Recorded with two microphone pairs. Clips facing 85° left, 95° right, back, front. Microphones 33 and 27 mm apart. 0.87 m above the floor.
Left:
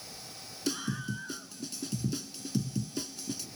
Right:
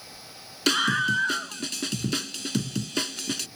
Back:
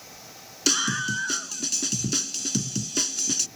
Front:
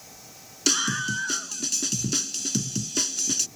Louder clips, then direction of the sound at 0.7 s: Right 13 dB, even; 95° right.